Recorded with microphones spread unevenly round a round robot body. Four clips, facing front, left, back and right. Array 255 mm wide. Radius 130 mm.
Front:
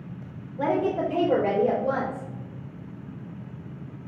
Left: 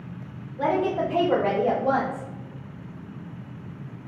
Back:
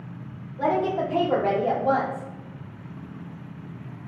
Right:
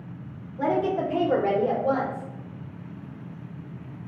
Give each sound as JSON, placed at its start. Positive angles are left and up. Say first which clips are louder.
{"t": 0.6, "sound": "a woman speaking", "louder": "left 1 dB, back 1 dB", "azimuth_deg": 0, "distance_m": 1.2}